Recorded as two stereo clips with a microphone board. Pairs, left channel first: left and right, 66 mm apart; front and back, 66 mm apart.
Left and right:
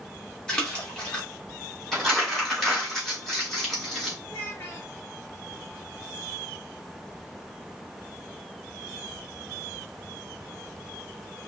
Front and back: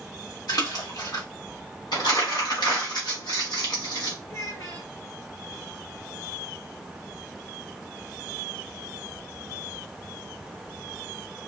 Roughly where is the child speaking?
Ahead left.